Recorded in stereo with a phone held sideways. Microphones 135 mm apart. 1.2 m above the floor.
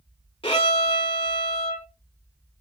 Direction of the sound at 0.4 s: 40° left (ahead or behind).